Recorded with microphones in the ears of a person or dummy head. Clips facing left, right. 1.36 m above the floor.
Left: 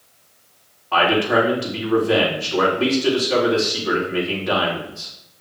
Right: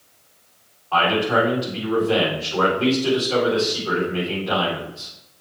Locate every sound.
0.9 s a man speaking: 25° left (ahead or behind), 4.5 m